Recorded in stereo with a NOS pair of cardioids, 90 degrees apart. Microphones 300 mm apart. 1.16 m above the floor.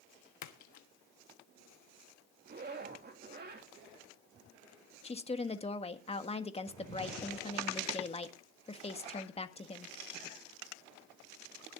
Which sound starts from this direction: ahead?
A woman speaking, at 5.0 s.